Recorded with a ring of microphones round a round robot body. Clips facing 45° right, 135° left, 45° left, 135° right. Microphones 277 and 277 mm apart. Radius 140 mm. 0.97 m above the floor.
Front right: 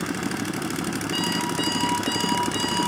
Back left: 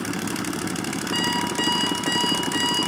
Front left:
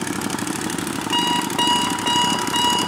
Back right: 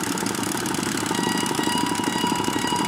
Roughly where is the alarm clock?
Ahead left.